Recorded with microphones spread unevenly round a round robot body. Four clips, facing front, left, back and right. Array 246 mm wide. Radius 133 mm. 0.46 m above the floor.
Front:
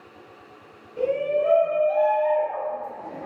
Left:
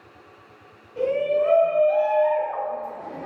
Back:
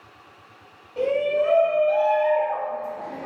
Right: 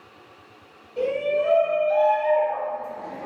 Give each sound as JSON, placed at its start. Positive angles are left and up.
{"t": 1.0, "sound": "a shout", "azimuth_deg": -170, "distance_m": 1.4}